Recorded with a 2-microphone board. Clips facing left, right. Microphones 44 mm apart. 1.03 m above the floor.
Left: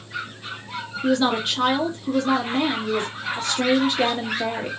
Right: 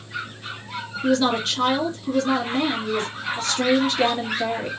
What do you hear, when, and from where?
1.0 s a woman speaking: 15° left (ahead or behind), 1.6 m